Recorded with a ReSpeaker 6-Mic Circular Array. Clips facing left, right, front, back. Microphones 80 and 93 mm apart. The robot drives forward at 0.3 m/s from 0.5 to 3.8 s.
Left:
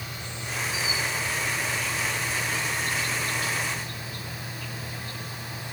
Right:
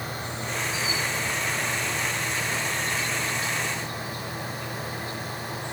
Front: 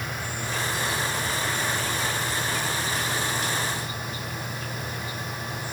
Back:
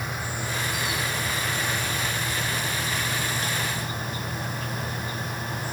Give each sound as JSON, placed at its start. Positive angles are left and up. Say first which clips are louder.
{"t": 0.0, "sound": "an insect", "louder": "right 5 dB, back 1 dB", "azimuth_deg": -110, "distance_m": 1.4}